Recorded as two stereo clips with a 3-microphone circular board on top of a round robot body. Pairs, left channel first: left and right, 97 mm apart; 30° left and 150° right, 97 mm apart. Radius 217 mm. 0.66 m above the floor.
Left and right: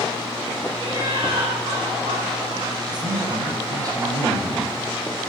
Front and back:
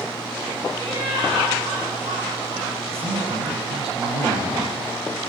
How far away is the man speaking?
About 7.5 m.